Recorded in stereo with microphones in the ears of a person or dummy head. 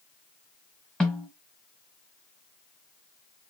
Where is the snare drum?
5° left (ahead or behind), 1.6 m.